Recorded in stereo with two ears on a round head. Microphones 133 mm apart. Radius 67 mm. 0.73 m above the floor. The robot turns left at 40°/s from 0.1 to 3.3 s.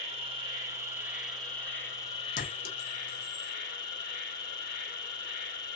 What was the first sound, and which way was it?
An insect, 125° right.